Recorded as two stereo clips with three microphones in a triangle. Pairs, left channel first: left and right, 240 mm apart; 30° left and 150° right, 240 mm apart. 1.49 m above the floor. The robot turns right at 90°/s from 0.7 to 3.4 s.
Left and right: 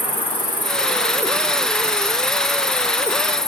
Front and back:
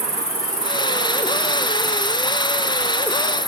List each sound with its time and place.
0.0 s an insect: 160° right, 0.8 m; by 3.5 s 80° left, 0.8 m